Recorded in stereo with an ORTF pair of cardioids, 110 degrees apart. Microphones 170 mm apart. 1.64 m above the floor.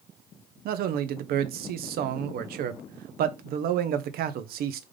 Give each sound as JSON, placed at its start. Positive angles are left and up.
{"t": 0.7, "sound": "a man speaking", "azimuth_deg": -65, "distance_m": 0.6}